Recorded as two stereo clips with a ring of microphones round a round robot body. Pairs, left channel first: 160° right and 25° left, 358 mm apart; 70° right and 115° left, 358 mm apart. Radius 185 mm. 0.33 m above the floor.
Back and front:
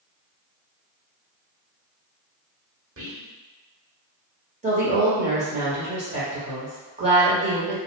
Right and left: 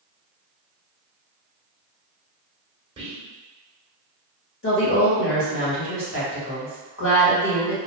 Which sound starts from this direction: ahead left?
Whispering, at 3.0 s.